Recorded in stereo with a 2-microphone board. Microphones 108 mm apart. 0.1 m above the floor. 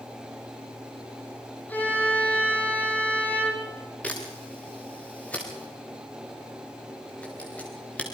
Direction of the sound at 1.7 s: 15° left (ahead or behind).